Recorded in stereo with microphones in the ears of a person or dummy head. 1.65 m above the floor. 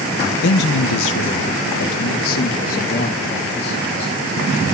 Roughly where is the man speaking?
Left.